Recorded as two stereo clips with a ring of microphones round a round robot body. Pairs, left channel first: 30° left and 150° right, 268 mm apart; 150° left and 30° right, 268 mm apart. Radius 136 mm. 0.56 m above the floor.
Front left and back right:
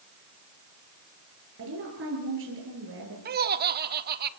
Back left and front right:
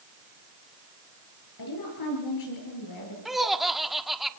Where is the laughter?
120° right, 1.3 m.